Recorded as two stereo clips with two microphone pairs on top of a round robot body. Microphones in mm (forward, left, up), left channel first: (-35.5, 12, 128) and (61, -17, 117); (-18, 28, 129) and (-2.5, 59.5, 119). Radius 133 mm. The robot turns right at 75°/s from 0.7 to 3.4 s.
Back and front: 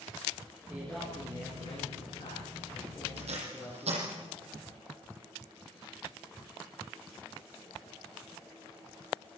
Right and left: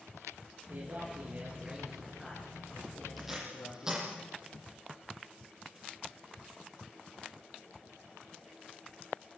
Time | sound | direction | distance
0.7 | a man speaking | 60° left | 10 m
3.2 | tape being pulled | 25° right | 9 m